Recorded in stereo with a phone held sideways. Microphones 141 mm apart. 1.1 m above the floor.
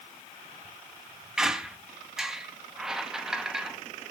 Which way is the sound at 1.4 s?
5° right (ahead or behind).